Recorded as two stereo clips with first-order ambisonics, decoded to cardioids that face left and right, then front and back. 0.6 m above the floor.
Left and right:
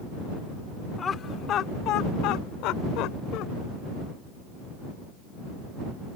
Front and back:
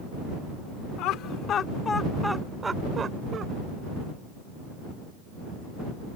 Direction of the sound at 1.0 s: 20° left.